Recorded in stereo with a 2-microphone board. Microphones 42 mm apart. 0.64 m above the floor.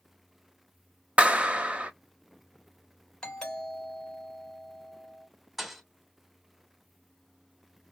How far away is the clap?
About 0.7 m.